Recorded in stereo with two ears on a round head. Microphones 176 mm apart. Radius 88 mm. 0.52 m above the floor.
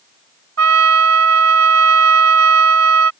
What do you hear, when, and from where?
0.6 s a trumpet: 80° right